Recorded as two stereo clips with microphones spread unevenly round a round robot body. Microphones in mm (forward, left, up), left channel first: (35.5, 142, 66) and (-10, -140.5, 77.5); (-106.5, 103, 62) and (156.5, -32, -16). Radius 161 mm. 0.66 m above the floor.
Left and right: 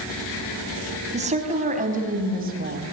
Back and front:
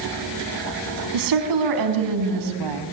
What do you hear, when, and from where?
1.1 s a woman speaking: 30° right, 5 m; by 2.8 s 40° right, 4 m